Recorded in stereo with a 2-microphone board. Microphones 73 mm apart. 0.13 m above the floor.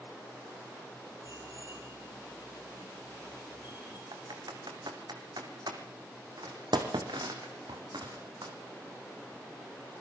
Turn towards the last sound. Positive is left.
turn(degrees=-80)